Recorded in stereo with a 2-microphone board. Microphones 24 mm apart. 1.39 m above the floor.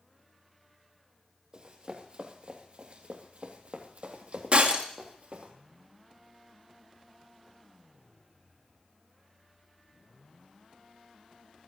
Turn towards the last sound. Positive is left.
turn(degrees=-50)  # may be behind; listen again after turning